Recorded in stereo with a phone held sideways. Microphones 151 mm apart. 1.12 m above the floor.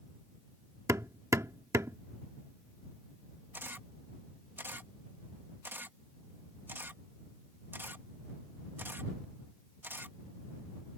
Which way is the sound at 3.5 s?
15° right (ahead or behind).